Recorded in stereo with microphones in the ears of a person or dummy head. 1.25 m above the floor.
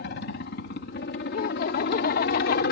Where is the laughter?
50° left (ahead or behind).